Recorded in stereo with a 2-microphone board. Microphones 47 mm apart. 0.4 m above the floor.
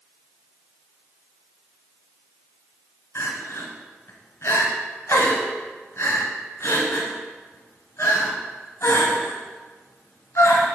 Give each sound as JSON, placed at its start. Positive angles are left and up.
{"t": 3.1, "sound": "crying", "side_deg": 65, "distance_m": 1.7}